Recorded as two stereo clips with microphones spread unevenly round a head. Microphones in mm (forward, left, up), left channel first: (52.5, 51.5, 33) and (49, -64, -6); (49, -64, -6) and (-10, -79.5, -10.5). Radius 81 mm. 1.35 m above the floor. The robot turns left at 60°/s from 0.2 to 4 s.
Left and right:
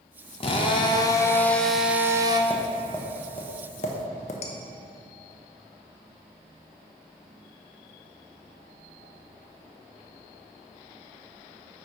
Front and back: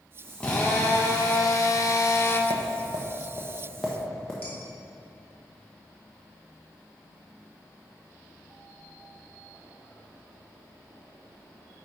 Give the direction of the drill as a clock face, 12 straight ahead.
9 o'clock.